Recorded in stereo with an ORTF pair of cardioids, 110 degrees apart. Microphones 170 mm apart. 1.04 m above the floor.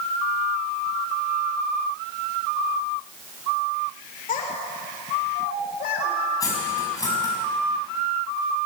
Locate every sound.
4.3 s a child speaking: 55° left, 3 m; by 6.2 s 70° left, 4 m
6.4 s cutlery clinking: 20° left, 5.5 m